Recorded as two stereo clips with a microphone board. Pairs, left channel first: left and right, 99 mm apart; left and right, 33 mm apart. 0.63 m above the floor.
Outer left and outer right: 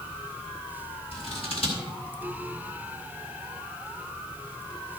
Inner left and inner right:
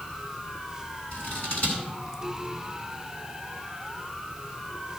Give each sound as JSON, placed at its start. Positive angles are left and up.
{"t": 1.1, "sound": "scissors", "side_deg": 70, "distance_m": 4.0}